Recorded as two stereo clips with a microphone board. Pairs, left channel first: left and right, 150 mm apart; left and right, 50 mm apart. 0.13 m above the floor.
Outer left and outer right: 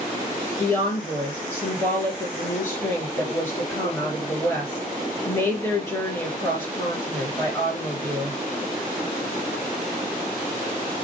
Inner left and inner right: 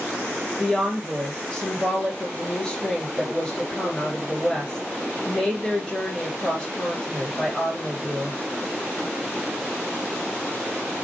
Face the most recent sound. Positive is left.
turn(degrees=20)  # may be behind; listen again after turning